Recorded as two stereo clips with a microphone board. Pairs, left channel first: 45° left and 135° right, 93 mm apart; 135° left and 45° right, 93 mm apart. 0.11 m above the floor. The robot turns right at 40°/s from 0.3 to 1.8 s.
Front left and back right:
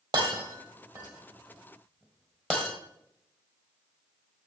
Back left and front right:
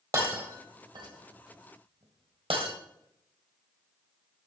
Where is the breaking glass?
95° right, 2 m; by 2.7 s 35° right, 2 m.